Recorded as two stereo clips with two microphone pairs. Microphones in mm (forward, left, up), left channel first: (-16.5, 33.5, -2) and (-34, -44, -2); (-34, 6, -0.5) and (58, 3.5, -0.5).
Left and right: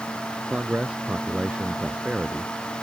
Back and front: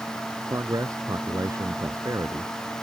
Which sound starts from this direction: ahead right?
A man speaking, at 0.5 s.